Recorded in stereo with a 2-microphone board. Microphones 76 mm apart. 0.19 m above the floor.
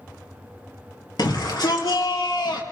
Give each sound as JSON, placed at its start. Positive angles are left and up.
{"t": 1.2, "sound": "a shout", "side_deg": 65, "distance_m": 3.0}